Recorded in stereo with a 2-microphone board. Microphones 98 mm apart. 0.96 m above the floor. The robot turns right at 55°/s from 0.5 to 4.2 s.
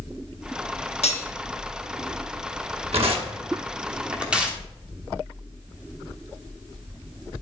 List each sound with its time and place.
1.0 s cutlery clinking: 85° left, 0.9 m; by 1.3 s 80° left, 0.9 m
2.9 s tearing paper: 75° right (ahead or behind), 1.1 m; by 4.6 s 10° right (ahead or behind), 1.1 m